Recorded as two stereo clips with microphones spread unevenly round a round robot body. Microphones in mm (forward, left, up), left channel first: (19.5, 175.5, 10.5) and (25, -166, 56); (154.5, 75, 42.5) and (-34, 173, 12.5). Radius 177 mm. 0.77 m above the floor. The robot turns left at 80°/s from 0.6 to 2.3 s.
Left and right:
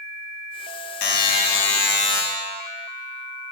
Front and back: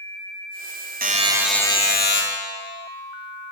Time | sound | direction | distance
1.0 | a buzzer | 105° left | 0.9 m